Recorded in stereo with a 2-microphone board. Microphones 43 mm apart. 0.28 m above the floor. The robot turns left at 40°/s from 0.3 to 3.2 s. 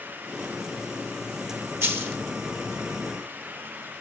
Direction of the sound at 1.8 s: 80° right.